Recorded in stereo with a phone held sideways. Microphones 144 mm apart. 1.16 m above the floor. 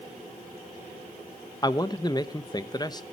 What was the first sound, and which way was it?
A man speaking, 30° left (ahead or behind).